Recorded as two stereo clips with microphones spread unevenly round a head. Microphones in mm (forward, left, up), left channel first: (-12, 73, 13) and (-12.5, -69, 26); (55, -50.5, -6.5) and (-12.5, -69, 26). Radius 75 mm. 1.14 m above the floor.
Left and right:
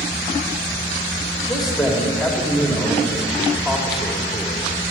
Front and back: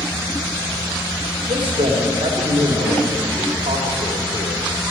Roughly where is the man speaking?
Behind.